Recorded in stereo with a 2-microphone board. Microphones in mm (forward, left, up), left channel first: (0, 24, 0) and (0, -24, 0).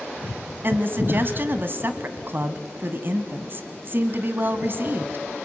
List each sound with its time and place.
0.6 s a woman speaking: 45° right (ahead or behind), 1.3 m